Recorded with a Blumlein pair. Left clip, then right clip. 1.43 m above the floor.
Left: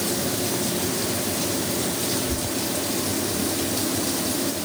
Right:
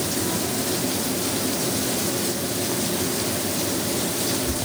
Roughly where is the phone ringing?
No phone ringing in this recording.